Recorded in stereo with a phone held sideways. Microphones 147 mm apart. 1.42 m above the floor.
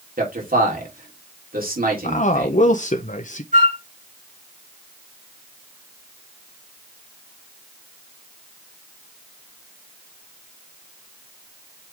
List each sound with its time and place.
0.2 s a man speaking: 80° right, 3 m
2.0 s a man speaking: 60° left (ahead or behind), 0.7 m
3.5 s a flute: 65° right (ahead or behind), 4 m